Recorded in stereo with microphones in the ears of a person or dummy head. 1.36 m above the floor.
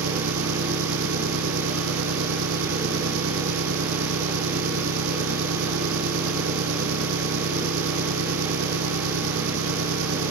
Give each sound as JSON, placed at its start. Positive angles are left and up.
{"t": 0.0, "sound": "an engine running", "side_deg": -80}